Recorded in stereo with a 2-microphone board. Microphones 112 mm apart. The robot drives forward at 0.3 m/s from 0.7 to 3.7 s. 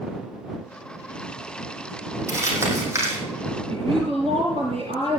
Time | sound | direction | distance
2.3 | crumpling | 25° right (ahead or behind) | 5.5 m
3.7 | a woman speaking | 55° right (ahead or behind) | 5.5 m